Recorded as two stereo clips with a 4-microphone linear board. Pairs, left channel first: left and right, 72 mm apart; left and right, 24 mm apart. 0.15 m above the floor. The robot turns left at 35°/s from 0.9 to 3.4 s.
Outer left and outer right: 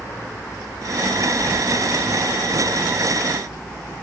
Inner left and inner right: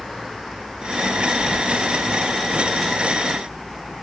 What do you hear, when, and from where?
1.4 s keys jangling: 15° right (ahead or behind), 3 m; by 1.6 s 25° right (ahead or behind), 3 m